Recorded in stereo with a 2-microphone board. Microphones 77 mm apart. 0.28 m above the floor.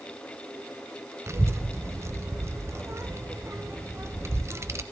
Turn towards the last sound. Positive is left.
turn(degrees=-35)  # may be behind; listen again after turning